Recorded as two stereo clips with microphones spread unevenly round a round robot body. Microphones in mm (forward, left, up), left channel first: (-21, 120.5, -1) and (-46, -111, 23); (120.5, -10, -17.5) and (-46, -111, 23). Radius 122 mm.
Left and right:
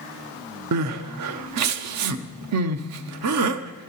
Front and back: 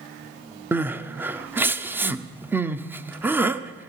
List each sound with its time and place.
0.7 s crying: 70° right, 0.6 m